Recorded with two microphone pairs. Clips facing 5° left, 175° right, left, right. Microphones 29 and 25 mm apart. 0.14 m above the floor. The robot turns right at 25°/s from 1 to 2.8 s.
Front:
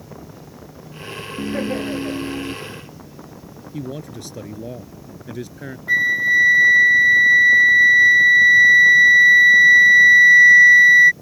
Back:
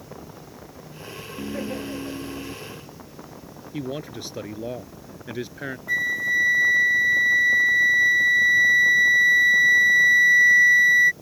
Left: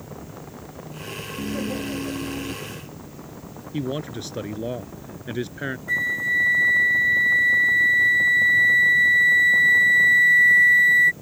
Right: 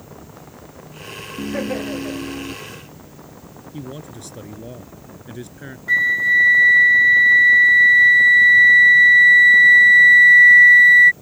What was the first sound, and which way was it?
Laughter, 60° right.